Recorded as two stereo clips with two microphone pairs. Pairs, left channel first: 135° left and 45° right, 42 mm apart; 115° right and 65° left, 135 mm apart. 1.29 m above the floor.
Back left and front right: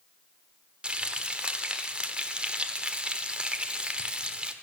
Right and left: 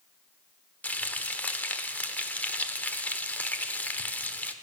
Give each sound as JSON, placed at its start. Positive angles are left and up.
{"t": 0.8, "sound": "frying", "azimuth_deg": -55, "distance_m": 1.0}